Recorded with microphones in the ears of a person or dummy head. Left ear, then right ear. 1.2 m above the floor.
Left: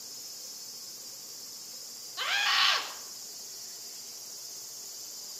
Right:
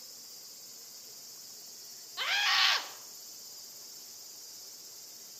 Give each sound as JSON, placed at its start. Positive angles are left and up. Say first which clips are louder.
{"t": 2.2, "sound": "a scream", "louder": "left 1 dB", "side_deg": -20, "distance_m": 1.9}